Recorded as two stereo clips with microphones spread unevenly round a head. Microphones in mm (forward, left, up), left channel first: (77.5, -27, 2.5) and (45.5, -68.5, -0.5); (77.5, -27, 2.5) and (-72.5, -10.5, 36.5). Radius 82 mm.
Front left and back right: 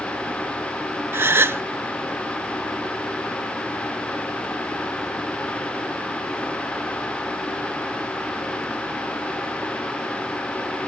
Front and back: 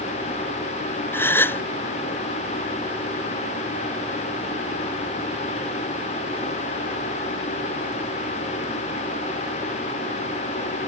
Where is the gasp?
90° right.